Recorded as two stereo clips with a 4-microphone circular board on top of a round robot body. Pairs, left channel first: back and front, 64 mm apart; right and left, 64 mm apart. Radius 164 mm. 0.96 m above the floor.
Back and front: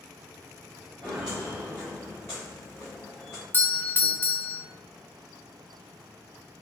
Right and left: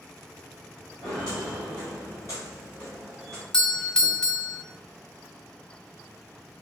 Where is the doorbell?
160° right, 0.7 m.